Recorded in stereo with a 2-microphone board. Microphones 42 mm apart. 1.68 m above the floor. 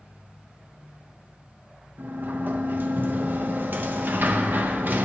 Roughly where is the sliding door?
Right.